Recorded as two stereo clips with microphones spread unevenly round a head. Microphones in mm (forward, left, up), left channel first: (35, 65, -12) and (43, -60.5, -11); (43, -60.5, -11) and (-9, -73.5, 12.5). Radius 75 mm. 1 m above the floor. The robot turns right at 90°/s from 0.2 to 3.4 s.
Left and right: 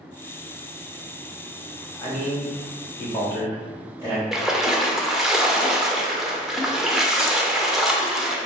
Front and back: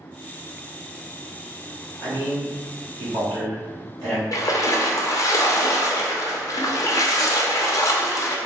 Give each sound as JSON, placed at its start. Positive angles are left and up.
{"t": 2.0, "sound": "a man speaking", "azimuth_deg": 35, "distance_m": 1.7}
{"t": 4.3, "sound": "a splash", "azimuth_deg": 0, "distance_m": 0.5}